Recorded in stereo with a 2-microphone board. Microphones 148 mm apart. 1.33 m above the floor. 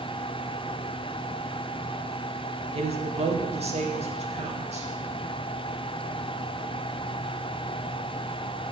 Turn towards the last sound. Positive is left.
turn(degrees=-45)  # may be behind; listen again after turning